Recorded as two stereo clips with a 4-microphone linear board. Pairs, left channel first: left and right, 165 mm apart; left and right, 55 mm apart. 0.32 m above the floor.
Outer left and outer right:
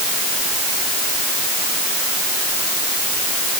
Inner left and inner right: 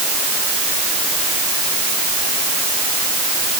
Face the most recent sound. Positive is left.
No sound to turn to.